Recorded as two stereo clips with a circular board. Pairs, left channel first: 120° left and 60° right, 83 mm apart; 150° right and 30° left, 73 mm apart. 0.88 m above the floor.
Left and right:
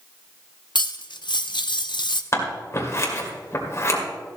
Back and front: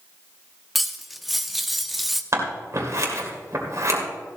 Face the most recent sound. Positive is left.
turn(degrees=70)